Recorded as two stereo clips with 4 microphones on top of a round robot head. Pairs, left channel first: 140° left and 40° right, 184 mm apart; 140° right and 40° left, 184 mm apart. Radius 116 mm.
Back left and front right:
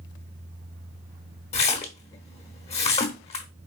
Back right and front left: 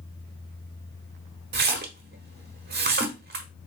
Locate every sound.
1.5 s a splash: 80° left, 1.0 m